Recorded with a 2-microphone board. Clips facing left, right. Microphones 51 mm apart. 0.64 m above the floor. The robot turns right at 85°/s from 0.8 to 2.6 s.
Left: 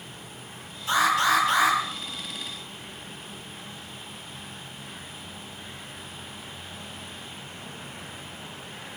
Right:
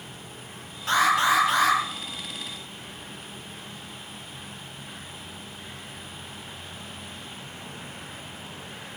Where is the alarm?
55° right, 9 m; by 1.8 s 25° left, 9 m.